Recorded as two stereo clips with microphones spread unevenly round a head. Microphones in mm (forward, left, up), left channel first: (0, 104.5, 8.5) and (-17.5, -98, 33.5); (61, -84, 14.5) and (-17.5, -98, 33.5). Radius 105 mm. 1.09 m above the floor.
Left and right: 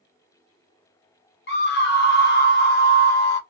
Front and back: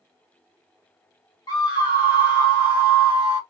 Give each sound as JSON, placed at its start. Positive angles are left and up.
{"t": 1.5, "sound": "a scream", "azimuth_deg": 50, "distance_m": 1.0}